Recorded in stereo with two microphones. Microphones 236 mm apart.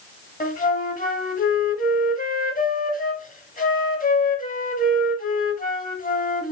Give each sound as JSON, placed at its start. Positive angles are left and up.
{"t": 0.4, "sound": "a flute", "side_deg": 35, "distance_m": 0.7}